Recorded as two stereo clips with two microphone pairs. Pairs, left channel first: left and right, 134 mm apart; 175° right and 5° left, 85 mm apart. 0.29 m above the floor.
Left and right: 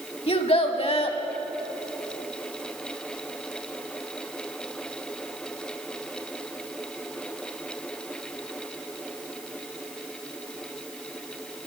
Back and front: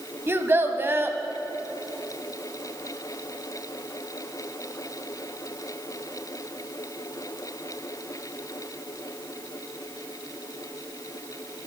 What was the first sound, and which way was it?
A child speaking, 60° left.